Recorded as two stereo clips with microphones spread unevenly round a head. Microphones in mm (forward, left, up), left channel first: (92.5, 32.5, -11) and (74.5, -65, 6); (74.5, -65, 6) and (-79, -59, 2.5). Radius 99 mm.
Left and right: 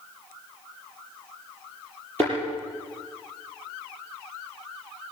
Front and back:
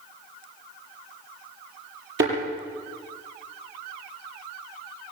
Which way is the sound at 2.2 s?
160° left.